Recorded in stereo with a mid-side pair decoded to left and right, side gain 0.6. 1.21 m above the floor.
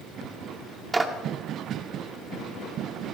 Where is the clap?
25° right, 2.5 m.